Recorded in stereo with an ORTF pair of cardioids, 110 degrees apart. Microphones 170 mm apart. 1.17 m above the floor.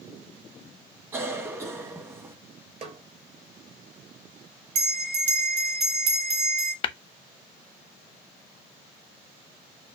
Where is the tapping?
30° left, 0.7 m.